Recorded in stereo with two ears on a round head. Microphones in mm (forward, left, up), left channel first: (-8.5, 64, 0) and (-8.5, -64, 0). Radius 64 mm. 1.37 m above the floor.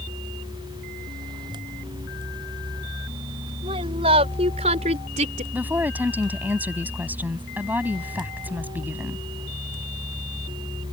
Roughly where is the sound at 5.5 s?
Centre.